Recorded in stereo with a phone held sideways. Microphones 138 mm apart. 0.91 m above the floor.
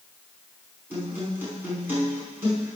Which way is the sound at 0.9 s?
15° right (ahead or behind).